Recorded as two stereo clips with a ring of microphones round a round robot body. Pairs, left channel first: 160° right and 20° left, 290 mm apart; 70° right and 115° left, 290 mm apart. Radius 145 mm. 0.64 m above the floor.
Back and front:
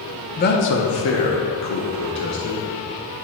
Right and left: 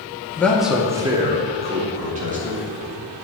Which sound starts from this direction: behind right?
A man speaking, at 0.4 s.